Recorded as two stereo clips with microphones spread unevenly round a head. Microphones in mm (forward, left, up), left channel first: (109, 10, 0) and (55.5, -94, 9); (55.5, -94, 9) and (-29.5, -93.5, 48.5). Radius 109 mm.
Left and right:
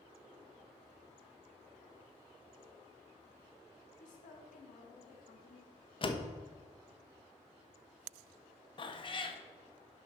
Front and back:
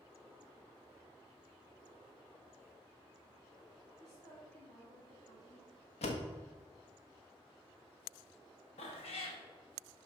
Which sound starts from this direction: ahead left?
A cat meowing, at 8.8 s.